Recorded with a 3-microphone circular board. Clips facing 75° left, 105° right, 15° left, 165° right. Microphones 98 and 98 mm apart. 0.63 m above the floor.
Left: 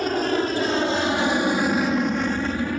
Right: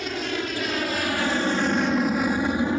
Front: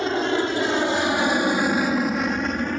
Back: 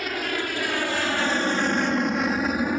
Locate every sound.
0.0 s an aircraft: 60° left; by 2.8 s 100° right